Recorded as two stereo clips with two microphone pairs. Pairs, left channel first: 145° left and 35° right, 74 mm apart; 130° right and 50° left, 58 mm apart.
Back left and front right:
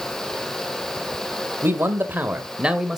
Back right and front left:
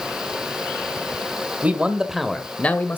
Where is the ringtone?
No ringtone in this recording.